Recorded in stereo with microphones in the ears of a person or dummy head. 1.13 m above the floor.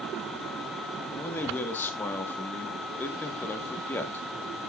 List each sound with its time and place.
1.1 s a man speaking: 10° left (ahead or behind), 1.6 m